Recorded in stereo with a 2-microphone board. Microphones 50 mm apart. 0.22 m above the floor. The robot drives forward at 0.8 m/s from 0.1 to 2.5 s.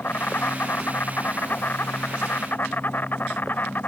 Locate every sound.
0.0 s an insect: 50° left (ahead or behind); by 3.9 s 45° left (ahead or behind)